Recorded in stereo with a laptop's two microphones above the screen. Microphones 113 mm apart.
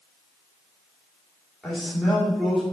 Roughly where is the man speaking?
Centre.